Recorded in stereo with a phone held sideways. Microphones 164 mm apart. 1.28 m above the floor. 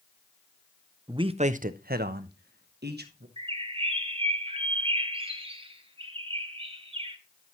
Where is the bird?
35° right (ahead or behind), 0.9 m.